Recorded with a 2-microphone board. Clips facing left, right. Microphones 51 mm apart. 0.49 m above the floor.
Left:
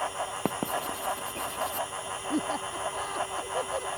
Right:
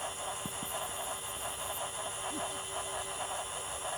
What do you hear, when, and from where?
0.5 s writing: 70° left (ahead or behind)
2.3 s laughter: 65° left (ahead or behind)